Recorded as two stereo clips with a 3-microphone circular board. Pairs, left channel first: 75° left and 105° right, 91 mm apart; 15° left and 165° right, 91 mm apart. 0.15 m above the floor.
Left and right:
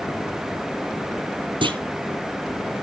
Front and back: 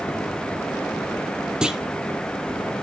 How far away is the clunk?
About 1.2 m.